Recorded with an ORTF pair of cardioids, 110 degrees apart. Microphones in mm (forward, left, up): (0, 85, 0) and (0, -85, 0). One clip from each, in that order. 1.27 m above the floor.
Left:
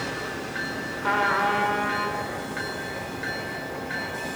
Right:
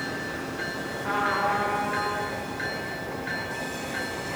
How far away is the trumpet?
About 2 m.